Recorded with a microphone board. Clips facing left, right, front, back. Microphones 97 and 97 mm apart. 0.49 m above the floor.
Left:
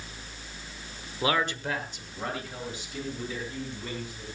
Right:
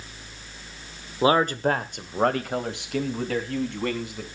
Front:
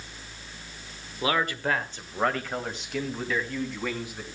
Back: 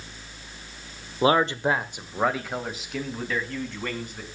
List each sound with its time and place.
1.2 s a man speaking: 140° right, 1.2 m; by 4.3 s 85° right, 4.5 m